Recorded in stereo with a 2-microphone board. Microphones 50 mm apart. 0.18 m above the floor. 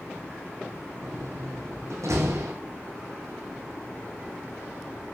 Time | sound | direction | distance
1.0 | a door slam | 80° right | 8.5 m